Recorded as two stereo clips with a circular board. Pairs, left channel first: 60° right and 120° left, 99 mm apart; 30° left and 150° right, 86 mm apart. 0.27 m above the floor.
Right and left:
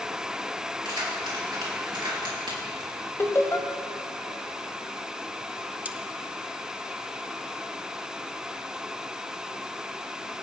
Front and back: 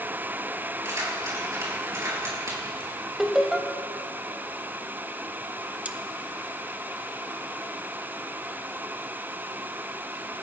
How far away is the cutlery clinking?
About 0.6 m.